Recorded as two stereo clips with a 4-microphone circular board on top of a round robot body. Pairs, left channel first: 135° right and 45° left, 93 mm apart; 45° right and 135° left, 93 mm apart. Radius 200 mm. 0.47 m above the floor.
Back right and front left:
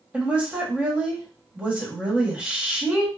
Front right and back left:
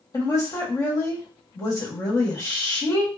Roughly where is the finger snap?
I don't hear a finger snap.